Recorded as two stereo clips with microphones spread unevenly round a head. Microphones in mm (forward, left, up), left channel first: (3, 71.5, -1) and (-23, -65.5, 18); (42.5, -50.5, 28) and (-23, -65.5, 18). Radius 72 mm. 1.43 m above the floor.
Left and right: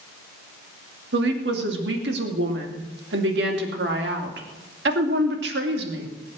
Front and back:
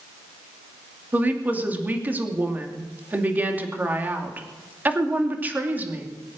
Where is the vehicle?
No vehicle in this recording.